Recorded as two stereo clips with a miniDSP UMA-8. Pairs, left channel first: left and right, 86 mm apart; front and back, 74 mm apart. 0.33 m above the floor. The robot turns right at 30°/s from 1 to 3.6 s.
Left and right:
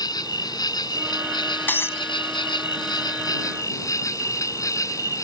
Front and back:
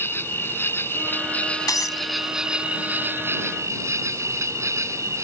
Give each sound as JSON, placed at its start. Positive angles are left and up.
{"t": 0.0, "sound": "an insect", "azimuth_deg": 55}
{"t": 1.7, "sound": "breaking glass", "azimuth_deg": 25}